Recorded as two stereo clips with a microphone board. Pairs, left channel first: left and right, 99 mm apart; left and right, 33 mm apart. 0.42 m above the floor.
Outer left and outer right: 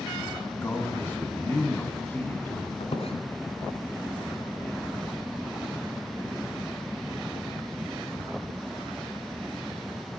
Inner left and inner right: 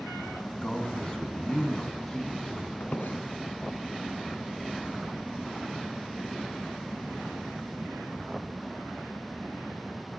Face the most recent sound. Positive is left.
turn(degrees=75)  # may be behind; listen again after turning